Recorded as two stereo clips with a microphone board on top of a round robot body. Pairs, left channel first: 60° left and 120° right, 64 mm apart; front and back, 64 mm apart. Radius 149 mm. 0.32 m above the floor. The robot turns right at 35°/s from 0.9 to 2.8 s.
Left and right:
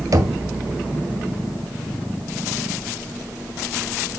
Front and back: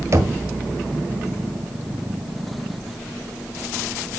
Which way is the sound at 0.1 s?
145° right.